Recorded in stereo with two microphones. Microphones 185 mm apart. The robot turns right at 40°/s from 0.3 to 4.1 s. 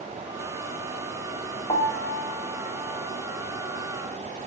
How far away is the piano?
About 1.2 m.